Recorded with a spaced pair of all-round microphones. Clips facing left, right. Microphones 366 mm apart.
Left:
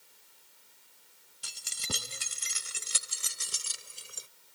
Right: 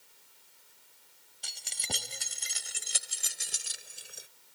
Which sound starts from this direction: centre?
Keys jangling, at 1.4 s.